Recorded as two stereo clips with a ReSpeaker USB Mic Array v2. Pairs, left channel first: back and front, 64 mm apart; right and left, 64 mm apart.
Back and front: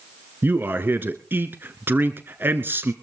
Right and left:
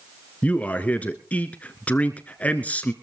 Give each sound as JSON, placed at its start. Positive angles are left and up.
{"t": 0.4, "sound": "a man speaking", "azimuth_deg": -35, "distance_m": 1.4}